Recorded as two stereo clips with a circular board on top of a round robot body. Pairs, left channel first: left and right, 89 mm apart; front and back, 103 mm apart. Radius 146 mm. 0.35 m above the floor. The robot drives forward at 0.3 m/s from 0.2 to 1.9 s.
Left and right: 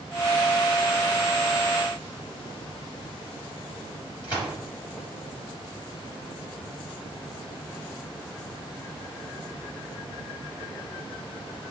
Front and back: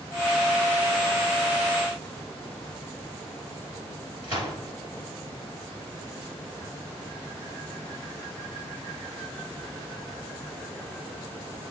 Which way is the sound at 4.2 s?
135° left.